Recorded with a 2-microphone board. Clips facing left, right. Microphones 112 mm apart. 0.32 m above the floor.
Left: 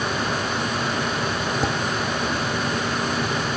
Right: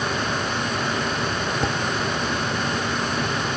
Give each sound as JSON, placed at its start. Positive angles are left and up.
{"t": 1.6, "sound": "dishes clattering", "side_deg": 5}